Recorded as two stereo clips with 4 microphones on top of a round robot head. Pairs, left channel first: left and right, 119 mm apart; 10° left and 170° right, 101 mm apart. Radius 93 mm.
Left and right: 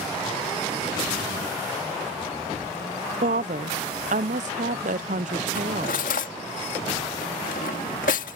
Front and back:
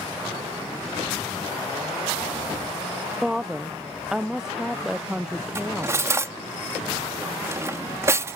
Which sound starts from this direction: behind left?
Cutlery clinking, at 5.5 s.